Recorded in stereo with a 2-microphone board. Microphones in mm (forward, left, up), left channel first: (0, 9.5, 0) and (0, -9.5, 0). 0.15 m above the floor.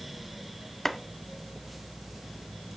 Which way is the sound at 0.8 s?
20° left (ahead or behind).